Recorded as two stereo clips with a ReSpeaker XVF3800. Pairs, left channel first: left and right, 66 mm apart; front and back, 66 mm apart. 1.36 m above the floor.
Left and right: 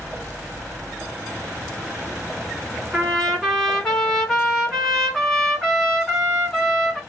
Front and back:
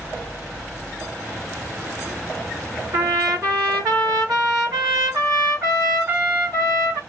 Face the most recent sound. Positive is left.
turn(degrees=170)